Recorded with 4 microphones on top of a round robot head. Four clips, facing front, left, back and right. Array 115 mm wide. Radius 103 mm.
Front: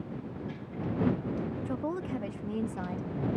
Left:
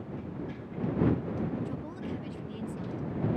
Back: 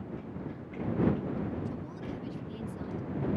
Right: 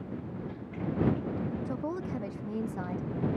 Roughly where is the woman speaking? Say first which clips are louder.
Right 3 dB, front 6 dB; ahead right.